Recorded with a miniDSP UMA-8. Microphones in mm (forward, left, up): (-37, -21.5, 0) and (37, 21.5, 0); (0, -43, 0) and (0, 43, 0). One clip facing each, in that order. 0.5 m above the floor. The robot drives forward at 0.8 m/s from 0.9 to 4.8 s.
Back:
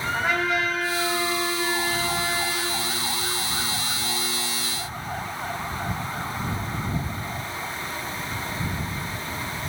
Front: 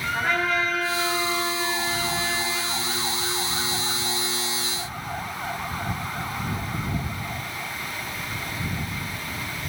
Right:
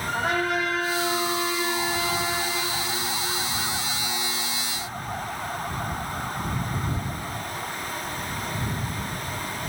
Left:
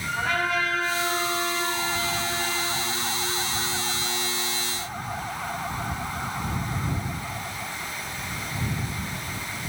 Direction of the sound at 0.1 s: 80° right.